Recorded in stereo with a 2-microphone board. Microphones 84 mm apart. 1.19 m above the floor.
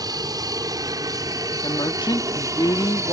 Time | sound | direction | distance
0.0 | an aircraft | 55° right (ahead or behind) | ?
1.6 | a woman speaking | 65° left (ahead or behind) | ?